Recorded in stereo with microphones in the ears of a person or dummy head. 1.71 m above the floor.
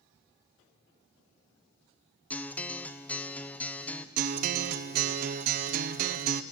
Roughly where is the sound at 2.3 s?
Centre.